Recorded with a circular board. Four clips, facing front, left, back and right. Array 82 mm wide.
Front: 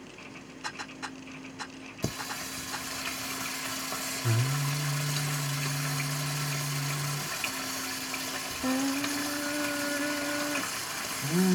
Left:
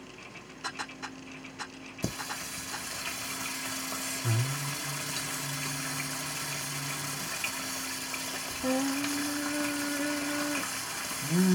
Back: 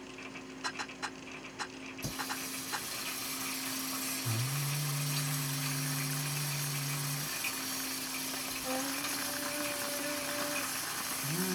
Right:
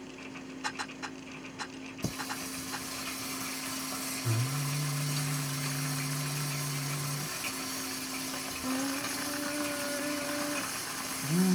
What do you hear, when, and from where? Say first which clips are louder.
2.0 s singing: left 1 dB, front 4 dB; 30° left, 0.8 m